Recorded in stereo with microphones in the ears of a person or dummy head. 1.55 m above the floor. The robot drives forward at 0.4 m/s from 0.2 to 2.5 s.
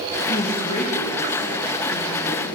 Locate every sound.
0.3 s a woman speaking: 55° left (ahead or behind), 0.9 m; by 2.5 s 30° left (ahead or behind), 1.5 m